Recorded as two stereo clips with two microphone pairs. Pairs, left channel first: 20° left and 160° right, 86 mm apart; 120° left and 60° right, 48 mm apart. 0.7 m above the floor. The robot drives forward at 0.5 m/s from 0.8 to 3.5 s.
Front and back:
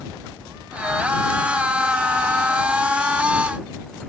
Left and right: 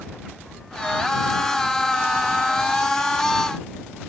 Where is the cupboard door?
No cupboard door in this recording.